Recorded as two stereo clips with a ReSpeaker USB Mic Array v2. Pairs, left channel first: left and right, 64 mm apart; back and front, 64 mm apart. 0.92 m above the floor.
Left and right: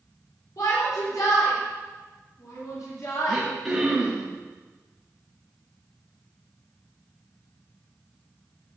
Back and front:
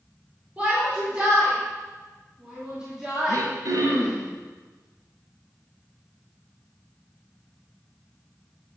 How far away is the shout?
About 4 m.